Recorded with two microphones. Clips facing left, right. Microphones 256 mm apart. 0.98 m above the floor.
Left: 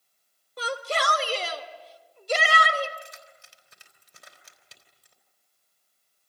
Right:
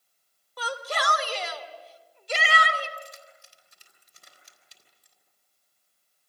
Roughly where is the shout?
Left.